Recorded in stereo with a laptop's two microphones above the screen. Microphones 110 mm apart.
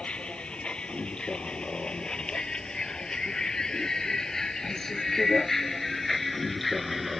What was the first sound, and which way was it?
A vehicle, 10° left (ahead or behind).